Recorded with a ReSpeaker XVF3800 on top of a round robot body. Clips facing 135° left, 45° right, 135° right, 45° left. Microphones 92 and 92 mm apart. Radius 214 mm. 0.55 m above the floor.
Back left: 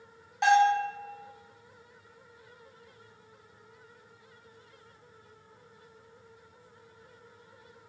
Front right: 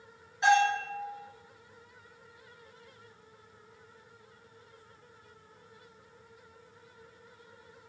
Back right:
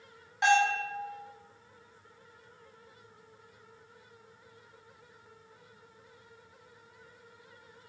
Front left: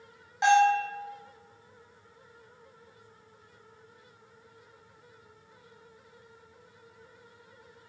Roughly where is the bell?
Behind left.